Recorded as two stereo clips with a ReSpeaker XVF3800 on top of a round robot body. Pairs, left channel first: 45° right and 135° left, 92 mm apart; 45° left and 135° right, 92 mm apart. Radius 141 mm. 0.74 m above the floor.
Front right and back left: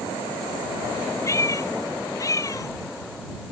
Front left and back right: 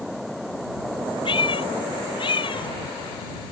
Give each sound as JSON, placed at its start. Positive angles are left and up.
{"t": 1.2, "sound": "a cat meowing", "azimuth_deg": 15}